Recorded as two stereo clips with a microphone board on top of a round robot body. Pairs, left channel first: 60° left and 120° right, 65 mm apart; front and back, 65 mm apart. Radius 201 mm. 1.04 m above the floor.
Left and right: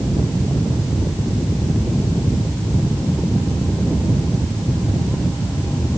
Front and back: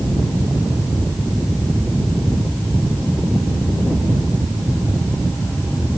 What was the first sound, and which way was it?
Only background noise.